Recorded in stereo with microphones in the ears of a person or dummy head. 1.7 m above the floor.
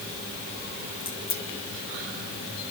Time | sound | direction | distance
1.0 | a crack | 35° left (ahead or behind) | 2 m